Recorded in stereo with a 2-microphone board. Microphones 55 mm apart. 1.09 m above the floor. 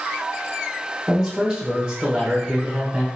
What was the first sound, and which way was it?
A man speaking, 10° right (ahead or behind).